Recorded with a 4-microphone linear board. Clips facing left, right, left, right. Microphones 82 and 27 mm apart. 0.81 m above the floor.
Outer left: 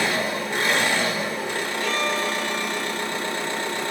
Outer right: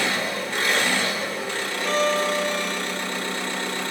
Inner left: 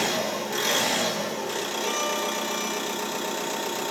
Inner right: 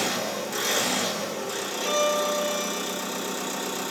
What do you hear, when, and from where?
0.0 s an engine running: 20° left (ahead or behind), 1.2 m
1.8 s a violin: 30° right (ahead or behind), 0.9 m